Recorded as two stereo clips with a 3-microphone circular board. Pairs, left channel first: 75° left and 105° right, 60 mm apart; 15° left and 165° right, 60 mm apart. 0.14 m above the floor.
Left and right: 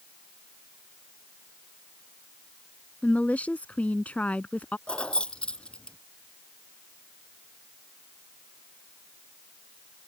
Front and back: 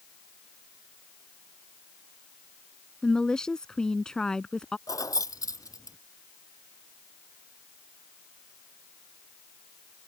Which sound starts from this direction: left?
A woman speaking, at 3.0 s.